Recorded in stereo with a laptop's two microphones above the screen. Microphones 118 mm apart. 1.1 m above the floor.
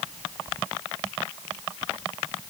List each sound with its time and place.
Only background noise.